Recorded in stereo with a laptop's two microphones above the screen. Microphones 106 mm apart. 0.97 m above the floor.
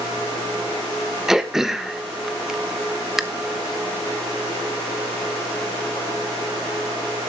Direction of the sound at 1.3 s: 5° right (ahead or behind).